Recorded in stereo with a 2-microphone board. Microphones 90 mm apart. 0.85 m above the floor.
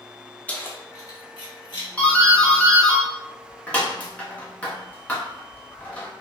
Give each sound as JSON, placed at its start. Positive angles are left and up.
{"t": 0.5, "sound": "keys jangling", "side_deg": 15, "distance_m": 0.5}
{"t": 2.0, "sound": "a doorbell", "side_deg": 15, "distance_m": 0.8}